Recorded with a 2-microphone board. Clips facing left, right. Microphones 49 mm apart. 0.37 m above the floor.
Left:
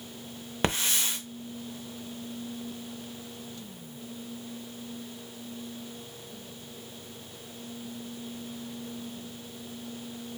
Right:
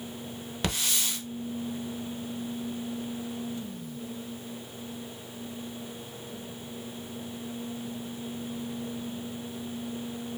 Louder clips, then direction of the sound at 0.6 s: Left 3 dB; 30° left (ahead or behind).